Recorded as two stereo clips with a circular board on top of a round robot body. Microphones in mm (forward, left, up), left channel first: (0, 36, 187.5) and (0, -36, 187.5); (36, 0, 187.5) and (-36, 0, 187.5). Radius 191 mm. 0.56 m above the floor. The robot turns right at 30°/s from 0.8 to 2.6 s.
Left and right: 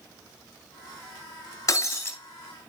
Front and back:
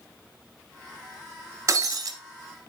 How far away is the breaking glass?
About 1.0 m.